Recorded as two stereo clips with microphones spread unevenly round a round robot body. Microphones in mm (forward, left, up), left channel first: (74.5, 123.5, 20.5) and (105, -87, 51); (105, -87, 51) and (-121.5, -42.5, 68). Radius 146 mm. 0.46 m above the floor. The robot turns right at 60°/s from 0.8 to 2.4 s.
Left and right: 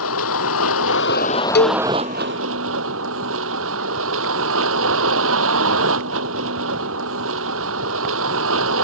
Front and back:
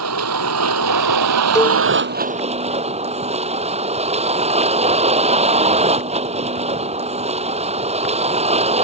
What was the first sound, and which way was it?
A vehicle, 135° left.